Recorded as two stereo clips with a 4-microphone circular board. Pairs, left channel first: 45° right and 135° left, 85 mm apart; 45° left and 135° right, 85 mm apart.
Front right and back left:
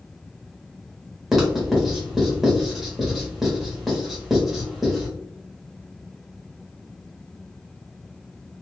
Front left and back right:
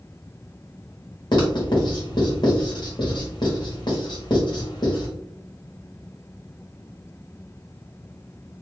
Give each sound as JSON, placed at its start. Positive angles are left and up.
{"t": 1.3, "sound": "writing", "azimuth_deg": 45, "distance_m": 1.3}